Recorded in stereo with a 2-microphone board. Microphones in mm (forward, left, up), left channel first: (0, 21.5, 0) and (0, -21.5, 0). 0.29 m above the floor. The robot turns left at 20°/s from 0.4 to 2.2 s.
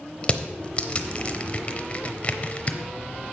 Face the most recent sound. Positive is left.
turn(degrees=30)  # may be behind; listen again after turning